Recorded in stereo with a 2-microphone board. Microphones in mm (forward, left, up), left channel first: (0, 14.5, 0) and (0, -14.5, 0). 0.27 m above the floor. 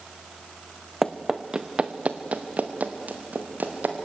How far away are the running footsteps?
About 1.2 m.